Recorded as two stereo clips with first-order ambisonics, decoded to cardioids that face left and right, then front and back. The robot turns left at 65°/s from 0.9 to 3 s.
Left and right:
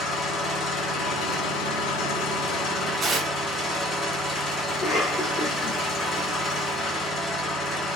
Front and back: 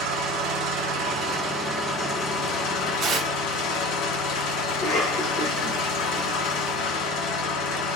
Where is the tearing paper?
145° right, 0.6 m.